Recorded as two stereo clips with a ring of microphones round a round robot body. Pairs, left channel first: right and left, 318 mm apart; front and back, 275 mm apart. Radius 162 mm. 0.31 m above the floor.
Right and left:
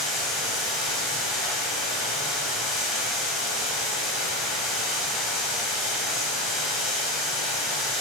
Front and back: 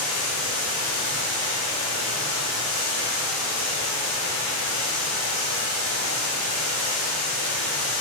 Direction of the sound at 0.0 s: Straight ahead.